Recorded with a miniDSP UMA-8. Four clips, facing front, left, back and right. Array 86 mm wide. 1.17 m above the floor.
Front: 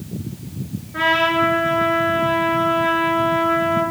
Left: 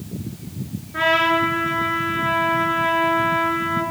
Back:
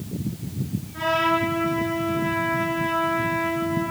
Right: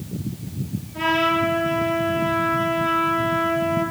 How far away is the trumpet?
About 7.5 m.